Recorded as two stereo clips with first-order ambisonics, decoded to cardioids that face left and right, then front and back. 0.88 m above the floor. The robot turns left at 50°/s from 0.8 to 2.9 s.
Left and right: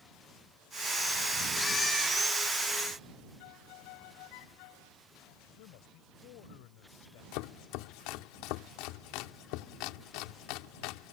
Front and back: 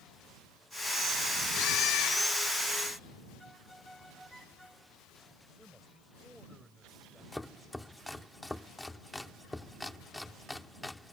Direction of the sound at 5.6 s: 95° left.